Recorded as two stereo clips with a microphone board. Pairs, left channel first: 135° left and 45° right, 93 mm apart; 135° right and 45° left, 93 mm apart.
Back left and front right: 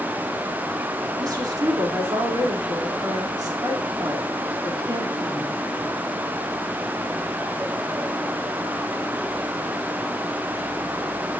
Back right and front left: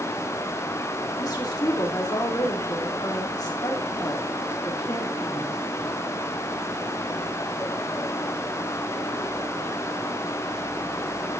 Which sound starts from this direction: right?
A woman speaking, at 1.2 s.